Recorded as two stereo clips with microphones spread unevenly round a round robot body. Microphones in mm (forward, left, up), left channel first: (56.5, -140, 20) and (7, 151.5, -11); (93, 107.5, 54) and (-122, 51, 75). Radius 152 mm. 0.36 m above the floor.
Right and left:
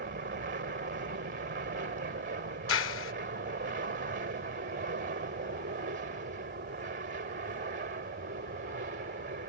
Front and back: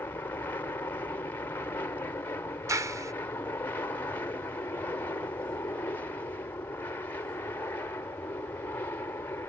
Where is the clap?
90° right.